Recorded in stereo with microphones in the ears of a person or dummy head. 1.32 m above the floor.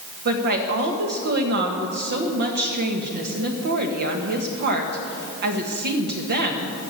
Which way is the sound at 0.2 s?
55° right (ahead or behind).